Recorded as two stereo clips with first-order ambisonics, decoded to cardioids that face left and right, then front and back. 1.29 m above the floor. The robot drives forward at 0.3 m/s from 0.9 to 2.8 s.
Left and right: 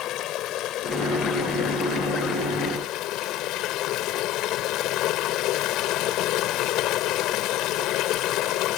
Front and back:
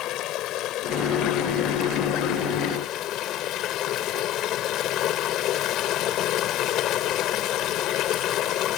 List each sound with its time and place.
0.0 s running water: 45° left; by 8.8 s 50° left